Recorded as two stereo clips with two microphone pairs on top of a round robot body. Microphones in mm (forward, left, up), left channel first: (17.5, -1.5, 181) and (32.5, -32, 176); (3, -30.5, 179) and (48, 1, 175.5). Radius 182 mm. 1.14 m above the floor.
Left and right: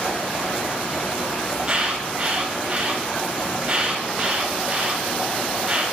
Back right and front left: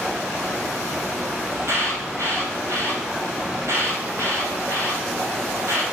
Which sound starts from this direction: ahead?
An alarm, at 1.5 s.